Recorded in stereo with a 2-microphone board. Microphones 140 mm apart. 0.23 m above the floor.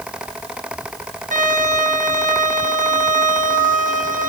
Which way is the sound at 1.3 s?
65° right (ahead or behind).